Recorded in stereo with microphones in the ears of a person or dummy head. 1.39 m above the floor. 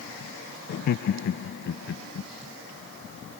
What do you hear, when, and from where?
0.7 s laughter: 50° left (ahead or behind); by 2.3 s 70° left (ahead or behind)